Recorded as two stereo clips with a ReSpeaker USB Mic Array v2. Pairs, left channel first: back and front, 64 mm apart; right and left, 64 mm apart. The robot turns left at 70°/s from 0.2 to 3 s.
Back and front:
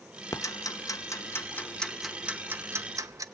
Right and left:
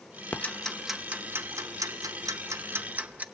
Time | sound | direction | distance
0.3 | ticking | 150° right | 0.8 m